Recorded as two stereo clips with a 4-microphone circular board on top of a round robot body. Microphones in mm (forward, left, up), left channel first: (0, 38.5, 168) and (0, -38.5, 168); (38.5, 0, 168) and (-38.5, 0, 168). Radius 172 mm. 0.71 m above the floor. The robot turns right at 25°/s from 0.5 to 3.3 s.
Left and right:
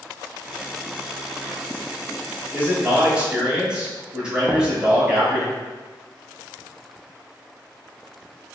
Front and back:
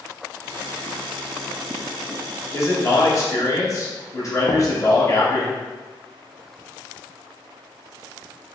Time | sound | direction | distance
2.5 | a man speaking | 35° right | 1.3 m
4.5 | knocking | 15° right | 0.5 m